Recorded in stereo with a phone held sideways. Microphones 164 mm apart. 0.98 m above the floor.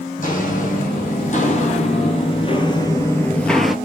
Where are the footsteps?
55° left (ahead or behind), 2 m; by 3.8 s centre (ahead or behind), 1.0 m.